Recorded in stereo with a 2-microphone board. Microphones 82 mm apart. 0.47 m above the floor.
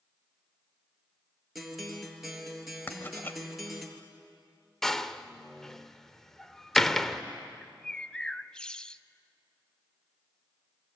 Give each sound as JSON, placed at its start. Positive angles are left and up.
{"t": 1.6, "sound": "a guitar", "side_deg": 0, "distance_m": 3.0}
{"t": 2.9, "sound": "writing", "side_deg": 25, "distance_m": 1.7}
{"t": 4.8, "sound": "a door slam", "side_deg": 5, "distance_m": 0.9}
{"t": 7.6, "sound": "a bird", "side_deg": 10, "distance_m": 0.6}